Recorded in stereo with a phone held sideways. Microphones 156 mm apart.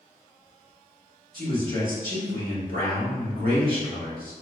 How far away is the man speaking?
About 1.3 m.